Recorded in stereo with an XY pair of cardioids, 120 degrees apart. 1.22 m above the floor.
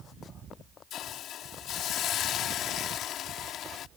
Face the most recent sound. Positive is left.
turn(degrees=65)